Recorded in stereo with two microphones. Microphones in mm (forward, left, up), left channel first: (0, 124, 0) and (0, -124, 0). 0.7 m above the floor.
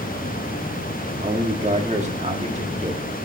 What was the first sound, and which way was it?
A man speaking, 30° right (ahead or behind).